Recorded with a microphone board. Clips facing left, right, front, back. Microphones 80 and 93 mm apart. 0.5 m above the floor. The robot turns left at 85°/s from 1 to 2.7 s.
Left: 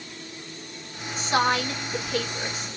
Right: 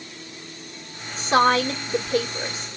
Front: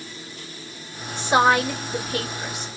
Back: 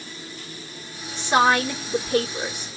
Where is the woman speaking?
60° right, 1.8 m; by 2.7 s 170° left, 1.8 m.